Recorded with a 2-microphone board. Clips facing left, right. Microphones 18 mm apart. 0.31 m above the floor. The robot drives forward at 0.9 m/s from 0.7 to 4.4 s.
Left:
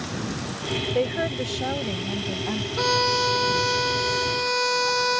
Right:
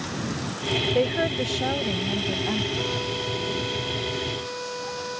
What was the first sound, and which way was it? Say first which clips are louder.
A woman speaking: right 1 dB; 5° right (ahead or behind).